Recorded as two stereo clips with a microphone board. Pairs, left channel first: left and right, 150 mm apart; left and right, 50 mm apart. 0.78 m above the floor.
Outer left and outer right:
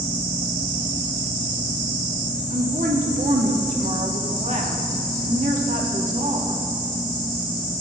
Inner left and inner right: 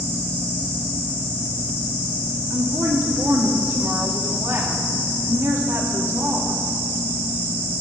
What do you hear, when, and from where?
2.5 s a woman speaking: 60° right (ahead or behind), 1.7 m